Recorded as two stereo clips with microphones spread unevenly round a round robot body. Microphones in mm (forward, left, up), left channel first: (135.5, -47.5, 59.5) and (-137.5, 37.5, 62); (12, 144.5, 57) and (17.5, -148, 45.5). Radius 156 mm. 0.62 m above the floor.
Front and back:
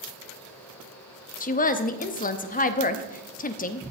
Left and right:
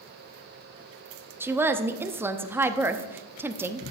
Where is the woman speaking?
20° right, 0.8 m.